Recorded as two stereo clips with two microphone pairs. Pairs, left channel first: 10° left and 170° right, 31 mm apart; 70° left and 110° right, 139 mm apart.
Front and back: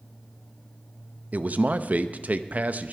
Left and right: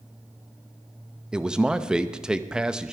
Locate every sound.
1.3 s a man speaking: 170° left, 0.7 m